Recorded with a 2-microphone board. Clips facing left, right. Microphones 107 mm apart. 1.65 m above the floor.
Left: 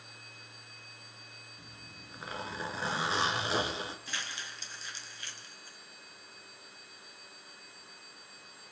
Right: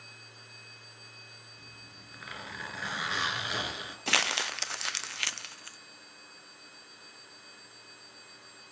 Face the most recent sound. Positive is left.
turn(degrees=-75)  # may be behind; listen again after turning